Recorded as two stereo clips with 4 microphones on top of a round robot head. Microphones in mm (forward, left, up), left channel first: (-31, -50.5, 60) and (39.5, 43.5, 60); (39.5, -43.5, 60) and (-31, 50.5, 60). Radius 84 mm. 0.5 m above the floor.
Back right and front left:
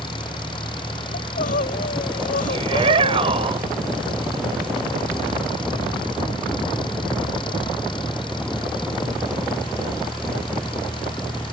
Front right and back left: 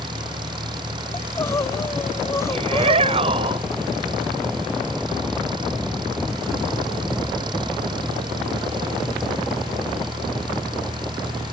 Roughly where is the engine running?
Behind.